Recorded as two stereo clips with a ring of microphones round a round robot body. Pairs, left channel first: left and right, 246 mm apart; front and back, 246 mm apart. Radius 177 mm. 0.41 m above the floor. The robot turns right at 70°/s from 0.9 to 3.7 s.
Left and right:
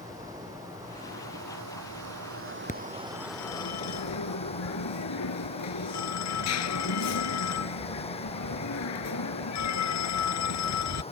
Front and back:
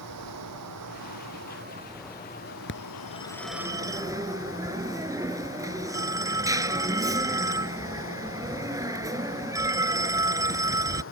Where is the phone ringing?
35° left; by 11.0 s 105° left.